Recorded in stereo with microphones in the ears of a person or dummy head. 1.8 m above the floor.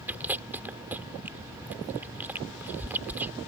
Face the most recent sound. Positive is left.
turn(degrees=-10)  # may be behind; listen again after turning